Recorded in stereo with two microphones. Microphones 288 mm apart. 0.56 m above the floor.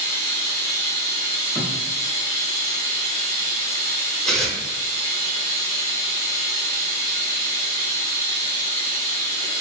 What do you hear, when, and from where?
0.0 s running water: 70° right (ahead or behind), 1.1 m
1.6 s a thud: 10° right (ahead or behind), 1.0 m
4.2 s tearing paper: centre (ahead or behind), 0.6 m